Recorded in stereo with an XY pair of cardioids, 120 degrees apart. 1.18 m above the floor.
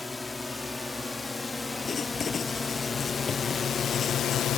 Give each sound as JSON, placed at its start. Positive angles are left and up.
{"t": 0.0, "sound": "a drone", "azimuth_deg": 15}
{"t": 1.9, "sound": "writing", "azimuth_deg": 40}